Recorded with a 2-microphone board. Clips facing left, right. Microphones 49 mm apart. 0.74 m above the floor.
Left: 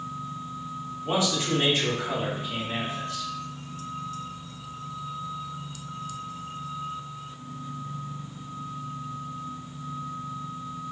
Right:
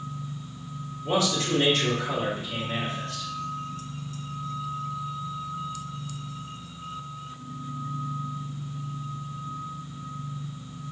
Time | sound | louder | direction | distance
1.0 | a man speaking | right 1 dB | 25° left (ahead or behind) | 1.4 m